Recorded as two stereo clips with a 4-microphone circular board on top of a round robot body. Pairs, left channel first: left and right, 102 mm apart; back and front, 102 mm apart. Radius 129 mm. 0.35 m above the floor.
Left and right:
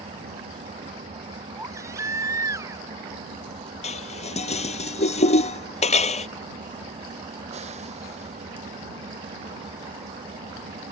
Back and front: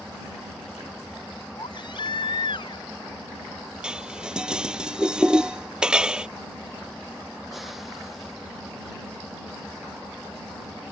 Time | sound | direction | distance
0.0 | an engine running | 90° right | ?
1.6 | a baby crying | 145° right | ?
3.8 | dishes clattering | 85° left | ?